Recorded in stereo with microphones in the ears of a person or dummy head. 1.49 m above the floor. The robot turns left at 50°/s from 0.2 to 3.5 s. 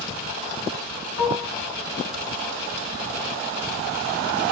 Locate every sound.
1.2 s dishes clattering: 35° left (ahead or behind), 2 m; by 1.5 s 50° left (ahead or behind), 2 m